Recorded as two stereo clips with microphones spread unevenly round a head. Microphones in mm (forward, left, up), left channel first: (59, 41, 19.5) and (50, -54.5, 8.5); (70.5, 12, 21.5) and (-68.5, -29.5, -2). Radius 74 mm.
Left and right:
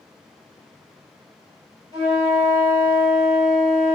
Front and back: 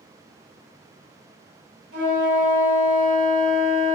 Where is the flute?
165° right, 1.5 m.